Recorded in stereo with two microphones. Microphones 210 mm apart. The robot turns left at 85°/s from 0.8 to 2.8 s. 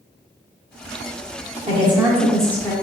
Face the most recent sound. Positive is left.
turn(degrees=145)